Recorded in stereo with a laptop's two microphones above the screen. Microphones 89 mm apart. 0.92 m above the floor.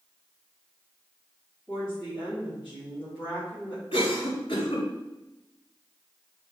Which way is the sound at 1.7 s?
10° right (ahead or behind).